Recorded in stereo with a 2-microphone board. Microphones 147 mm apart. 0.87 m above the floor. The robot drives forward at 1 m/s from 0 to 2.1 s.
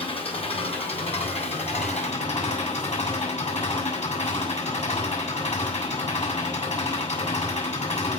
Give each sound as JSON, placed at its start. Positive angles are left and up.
{"t": 0.0, "sound": "an engine running", "side_deg": 40, "distance_m": 8.5}